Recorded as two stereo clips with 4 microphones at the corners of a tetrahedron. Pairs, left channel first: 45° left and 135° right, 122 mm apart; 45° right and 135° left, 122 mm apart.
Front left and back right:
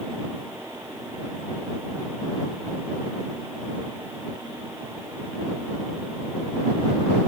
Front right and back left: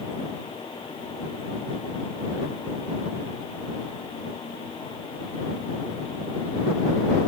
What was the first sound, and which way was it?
Only background noise.